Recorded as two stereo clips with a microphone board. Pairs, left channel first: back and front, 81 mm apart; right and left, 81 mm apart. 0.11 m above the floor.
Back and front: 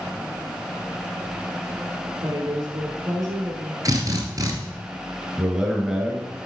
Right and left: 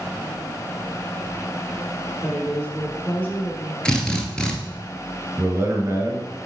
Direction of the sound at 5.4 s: 85° left.